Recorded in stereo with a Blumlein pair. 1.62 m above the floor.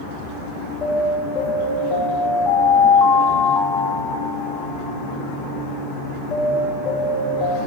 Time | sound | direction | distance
0.8 | an alarm | 15° left | 2 m